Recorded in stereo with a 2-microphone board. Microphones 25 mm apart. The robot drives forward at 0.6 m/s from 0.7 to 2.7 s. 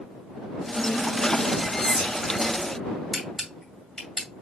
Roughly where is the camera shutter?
Centre.